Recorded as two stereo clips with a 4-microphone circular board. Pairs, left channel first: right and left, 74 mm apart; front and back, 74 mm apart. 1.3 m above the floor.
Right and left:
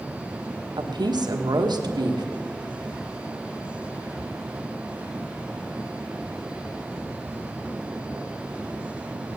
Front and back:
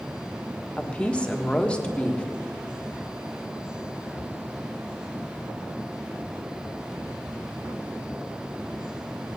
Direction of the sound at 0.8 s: 75° left.